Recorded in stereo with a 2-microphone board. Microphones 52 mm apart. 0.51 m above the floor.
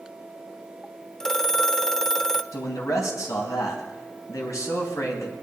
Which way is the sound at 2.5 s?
70° left (ahead or behind).